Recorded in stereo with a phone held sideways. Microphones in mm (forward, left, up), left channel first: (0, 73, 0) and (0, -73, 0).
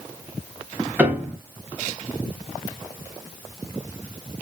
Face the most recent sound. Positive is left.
turn(degrees=-10)  # may be behind; listen again after turning